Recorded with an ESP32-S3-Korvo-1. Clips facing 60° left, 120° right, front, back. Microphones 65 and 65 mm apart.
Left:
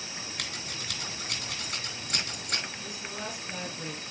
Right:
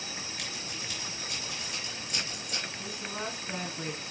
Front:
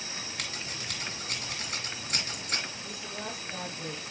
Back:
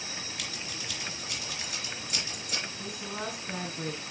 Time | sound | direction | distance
0.4 | scissors | 35° left | 3 m
2.8 | a woman speaking | 175° right | 2.5 m